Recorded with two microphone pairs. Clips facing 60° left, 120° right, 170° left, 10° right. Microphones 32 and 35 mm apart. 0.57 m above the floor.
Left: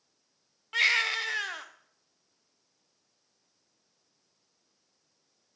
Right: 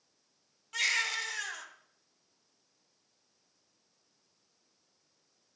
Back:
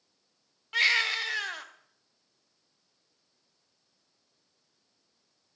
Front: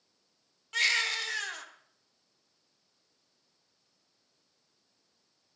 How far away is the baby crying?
About 0.7 m.